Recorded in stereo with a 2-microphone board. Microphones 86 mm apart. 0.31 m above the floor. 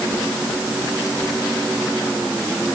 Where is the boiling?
I don't hear boiling.